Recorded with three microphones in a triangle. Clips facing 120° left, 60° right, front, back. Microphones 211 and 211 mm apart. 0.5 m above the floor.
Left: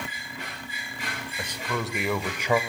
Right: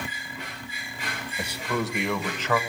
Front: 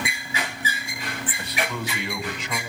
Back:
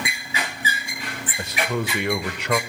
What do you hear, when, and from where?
1.4 s a man speaking: 135° right, 1.6 m; by 2.6 s 170° right, 1.8 m